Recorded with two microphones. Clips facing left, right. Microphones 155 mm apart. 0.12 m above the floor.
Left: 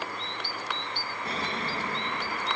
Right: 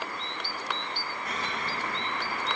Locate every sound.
1.2 s an explosion: 30° left (ahead or behind), 5 m